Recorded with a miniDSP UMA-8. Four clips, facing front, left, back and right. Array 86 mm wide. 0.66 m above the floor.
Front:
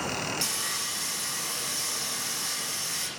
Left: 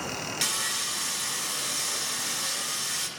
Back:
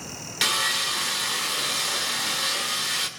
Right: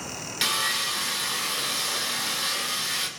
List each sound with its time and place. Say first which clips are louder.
0.4 s sawing: right 5 dB, back 8 dB; 160° right, 2.5 m